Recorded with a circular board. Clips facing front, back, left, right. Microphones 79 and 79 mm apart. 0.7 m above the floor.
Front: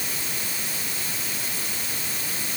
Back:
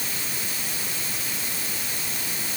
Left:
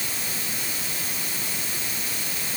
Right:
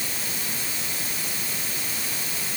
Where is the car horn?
No car horn in this recording.